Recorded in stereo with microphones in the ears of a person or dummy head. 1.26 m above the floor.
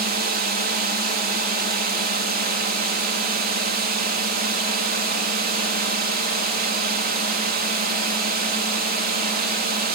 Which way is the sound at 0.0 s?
45° right (ahead or behind).